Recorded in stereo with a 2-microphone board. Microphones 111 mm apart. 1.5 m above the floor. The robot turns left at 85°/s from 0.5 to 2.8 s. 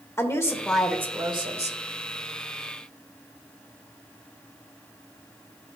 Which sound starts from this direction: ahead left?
A woman speaking, at 0.2 s.